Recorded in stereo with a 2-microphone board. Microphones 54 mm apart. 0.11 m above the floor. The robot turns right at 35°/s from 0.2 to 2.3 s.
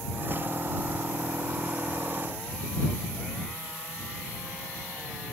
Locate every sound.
Only background noise.